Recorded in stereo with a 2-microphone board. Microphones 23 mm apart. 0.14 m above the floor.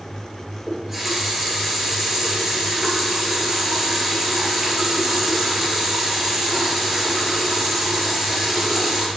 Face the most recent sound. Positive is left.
turn(degrees=-10)  # may be behind; listen again after turning